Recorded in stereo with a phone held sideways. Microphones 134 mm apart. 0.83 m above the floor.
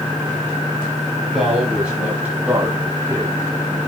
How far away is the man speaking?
About 7.5 m.